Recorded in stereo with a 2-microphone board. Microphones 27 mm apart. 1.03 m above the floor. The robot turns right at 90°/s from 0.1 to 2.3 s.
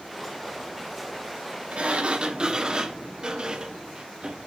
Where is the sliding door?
90° right, 0.7 m; by 4.5 s 35° right, 0.7 m.